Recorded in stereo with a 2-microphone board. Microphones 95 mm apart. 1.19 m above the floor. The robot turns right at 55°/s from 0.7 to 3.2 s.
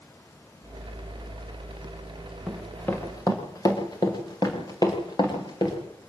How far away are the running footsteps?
About 5.5 m.